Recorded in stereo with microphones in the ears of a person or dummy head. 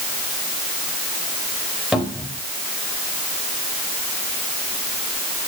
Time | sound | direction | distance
1.9 | a cupboard door | 5° left (ahead or behind) | 4 m